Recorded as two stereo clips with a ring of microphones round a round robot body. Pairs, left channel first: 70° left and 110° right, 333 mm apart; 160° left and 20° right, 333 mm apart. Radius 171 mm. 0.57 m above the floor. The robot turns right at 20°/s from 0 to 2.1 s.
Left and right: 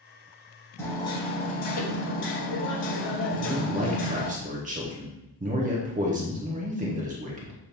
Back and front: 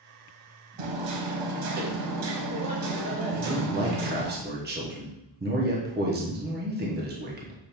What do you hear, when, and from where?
0.8 s hammering: 15° right, 1.0 m; by 4.3 s 10° left, 1.0 m
3.3 s a man speaking: 60° right, 0.9 m